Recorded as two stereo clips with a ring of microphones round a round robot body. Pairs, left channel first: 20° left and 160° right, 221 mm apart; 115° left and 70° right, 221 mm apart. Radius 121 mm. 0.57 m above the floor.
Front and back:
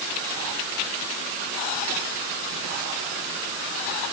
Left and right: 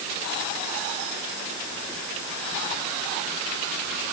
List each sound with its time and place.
Only background noise.